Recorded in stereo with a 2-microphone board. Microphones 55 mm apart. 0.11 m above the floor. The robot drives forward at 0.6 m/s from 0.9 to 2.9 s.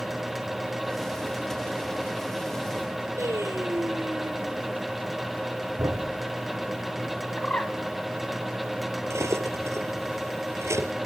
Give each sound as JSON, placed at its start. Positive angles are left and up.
{"t": 3.2, "sound": "singing", "side_deg": -60, "distance_m": 3.5}
{"t": 5.8, "sound": "a thud", "side_deg": -75, "distance_m": 5.5}
{"t": 7.4, "sound": "a bird", "side_deg": 25, "distance_m": 1.1}
{"t": 9.1, "sound": "cutlery clinking", "side_deg": -60, "distance_m": 1.7}